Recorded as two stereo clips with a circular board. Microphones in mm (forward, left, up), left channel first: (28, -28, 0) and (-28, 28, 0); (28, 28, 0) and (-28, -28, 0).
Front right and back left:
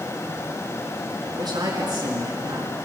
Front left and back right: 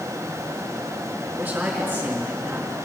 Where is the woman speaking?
145° left, 4.5 m.